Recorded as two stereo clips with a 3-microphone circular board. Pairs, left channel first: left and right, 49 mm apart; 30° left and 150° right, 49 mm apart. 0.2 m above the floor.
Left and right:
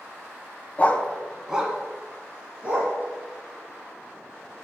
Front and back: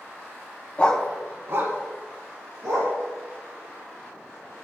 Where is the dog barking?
70° left, 0.6 m; by 2.9 s 155° right, 2.5 m.